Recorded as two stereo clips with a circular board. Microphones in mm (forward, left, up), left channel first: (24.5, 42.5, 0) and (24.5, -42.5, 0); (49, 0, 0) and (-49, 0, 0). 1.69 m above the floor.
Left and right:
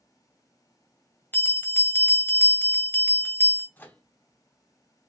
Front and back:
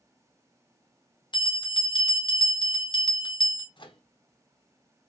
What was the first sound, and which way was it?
A bell, 25° left.